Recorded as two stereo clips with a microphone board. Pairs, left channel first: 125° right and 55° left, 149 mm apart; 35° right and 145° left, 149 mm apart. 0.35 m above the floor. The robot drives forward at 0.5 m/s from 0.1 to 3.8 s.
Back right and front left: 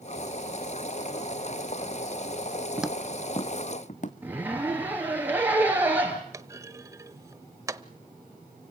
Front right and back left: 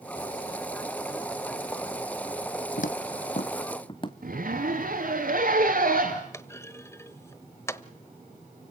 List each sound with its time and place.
2.8 s footsteps: 20° right, 0.6 m; by 4.1 s 90° right, 1.4 m
4.2 s a zipper: 135° left, 4 m
6.3 s a clunk: 15° left, 0.8 m